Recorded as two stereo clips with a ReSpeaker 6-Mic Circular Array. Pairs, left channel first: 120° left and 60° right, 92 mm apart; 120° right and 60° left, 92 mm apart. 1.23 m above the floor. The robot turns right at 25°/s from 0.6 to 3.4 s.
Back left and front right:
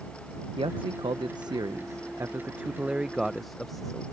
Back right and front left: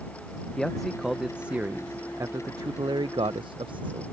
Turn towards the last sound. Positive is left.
turn(degrees=30)